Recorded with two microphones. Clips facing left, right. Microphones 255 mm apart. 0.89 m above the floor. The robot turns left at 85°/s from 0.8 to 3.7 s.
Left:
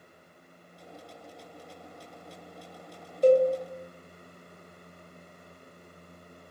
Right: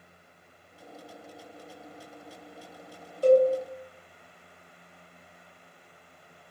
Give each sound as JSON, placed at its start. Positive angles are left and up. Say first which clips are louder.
{"t": 3.2, "sound": "a cowbell", "louder": "right 1 dB", "side_deg": 20, "distance_m": 1.0}